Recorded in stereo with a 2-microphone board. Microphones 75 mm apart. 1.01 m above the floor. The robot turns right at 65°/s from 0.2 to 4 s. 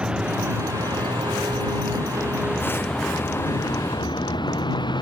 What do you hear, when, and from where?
0.0 s a vehicle: 165° right; by 5.0 s 80° left